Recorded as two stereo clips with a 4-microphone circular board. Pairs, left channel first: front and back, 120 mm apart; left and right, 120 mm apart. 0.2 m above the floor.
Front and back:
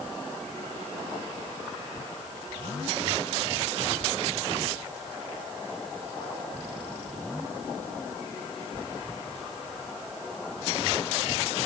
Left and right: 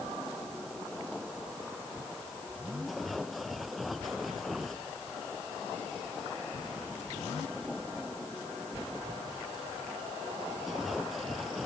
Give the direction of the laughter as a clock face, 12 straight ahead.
No laughter in this recording.